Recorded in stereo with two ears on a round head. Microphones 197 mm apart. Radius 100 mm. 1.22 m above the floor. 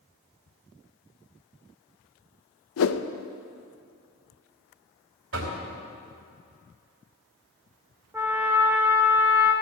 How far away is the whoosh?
About 0.7 m.